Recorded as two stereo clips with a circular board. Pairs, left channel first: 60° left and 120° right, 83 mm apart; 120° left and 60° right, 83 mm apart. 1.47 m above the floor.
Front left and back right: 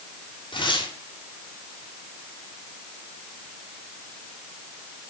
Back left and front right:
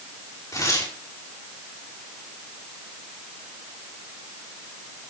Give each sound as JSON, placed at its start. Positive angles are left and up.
{"t": 0.5, "sound": "tearing paper", "azimuth_deg": 70, "distance_m": 4.5}